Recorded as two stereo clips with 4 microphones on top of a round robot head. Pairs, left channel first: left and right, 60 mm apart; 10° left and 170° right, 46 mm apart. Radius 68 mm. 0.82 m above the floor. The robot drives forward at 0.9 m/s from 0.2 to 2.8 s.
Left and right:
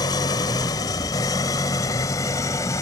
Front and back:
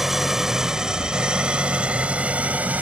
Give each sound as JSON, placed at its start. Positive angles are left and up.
{"t": 0.0, "sound": "an engine running", "azimuth_deg": 105}